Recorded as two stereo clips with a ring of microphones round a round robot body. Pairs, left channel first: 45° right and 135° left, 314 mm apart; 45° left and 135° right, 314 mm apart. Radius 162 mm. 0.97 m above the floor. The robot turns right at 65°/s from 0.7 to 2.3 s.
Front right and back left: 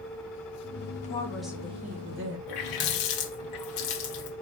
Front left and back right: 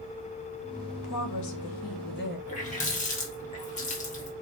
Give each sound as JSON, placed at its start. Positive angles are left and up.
{"t": 1.0, "sound": "a woman speaking", "azimuth_deg": 20, "distance_m": 1.2}
{"t": 2.5, "sound": "a running tap", "azimuth_deg": -25, "distance_m": 1.1}